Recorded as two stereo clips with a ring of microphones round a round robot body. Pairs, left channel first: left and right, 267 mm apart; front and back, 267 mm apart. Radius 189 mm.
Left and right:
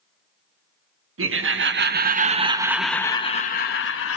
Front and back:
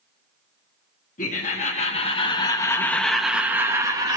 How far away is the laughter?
About 1.3 m.